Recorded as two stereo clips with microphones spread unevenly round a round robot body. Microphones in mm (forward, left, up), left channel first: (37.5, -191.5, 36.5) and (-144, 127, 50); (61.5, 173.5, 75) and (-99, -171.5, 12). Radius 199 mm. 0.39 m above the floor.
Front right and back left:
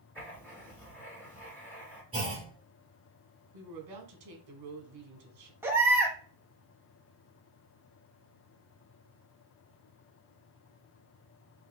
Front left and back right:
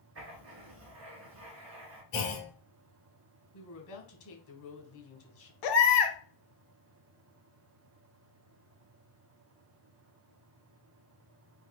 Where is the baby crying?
35° left, 1.0 m.